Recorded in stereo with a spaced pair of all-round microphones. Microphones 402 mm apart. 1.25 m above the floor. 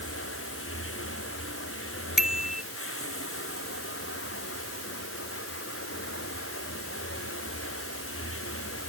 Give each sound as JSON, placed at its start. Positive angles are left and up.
{"t": 0.0, "sound": "running water", "side_deg": 30}
{"t": 2.2, "sound": "a bicycle bell", "side_deg": 0}